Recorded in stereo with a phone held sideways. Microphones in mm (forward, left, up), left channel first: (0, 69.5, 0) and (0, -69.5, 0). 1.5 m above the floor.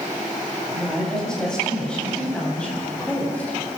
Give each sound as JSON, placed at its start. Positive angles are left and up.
{"t": 0.7, "sound": "a woman speaking", "side_deg": 5, "distance_m": 10.0}